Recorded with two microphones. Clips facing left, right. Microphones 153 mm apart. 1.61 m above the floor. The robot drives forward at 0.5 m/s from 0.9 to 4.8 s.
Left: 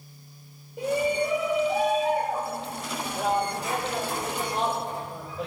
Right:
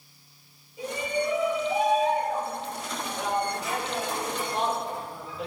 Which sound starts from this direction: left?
A shout, at 0.8 s.